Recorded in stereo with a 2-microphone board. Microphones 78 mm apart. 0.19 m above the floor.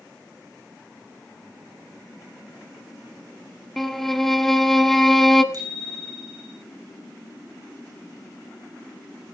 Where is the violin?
5° left (ahead or behind), 0.9 m.